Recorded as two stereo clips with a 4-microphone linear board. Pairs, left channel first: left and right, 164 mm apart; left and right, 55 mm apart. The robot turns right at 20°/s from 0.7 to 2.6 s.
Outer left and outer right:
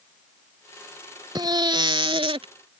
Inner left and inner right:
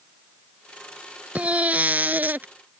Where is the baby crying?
25° right (ahead or behind); by 2.5 s 35° right (ahead or behind).